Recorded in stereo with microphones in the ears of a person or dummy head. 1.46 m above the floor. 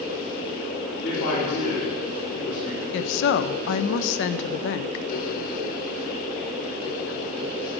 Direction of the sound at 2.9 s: 70° left (ahead or behind).